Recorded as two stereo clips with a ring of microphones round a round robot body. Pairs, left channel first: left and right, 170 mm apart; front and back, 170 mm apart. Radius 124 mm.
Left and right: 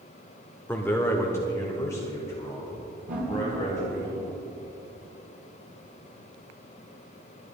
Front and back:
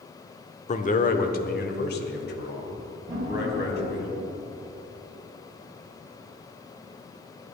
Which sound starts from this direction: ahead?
A man speaking, at 0.7 s.